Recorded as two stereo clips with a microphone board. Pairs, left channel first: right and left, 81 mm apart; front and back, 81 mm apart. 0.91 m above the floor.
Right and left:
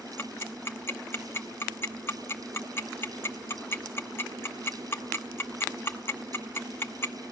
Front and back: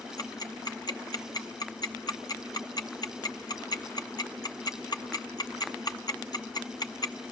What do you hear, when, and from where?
0.2 s ticking: 30° right, 0.9 m